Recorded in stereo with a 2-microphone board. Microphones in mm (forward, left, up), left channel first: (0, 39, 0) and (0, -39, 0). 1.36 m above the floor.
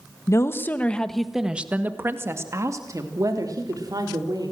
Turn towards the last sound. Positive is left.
turn(degrees=-60)  # may be behind; listen again after turning